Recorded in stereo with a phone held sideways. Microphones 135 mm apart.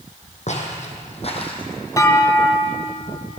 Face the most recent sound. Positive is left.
turn(degrees=25)  # may be behind; listen again after turning